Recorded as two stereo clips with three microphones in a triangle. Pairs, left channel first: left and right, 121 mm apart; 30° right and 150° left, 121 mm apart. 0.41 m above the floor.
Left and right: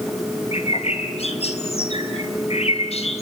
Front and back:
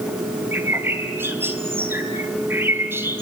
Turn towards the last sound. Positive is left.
turn(degrees=80)